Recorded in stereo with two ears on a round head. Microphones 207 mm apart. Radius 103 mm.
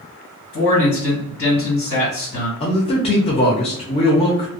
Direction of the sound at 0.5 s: 55° left (ahead or behind).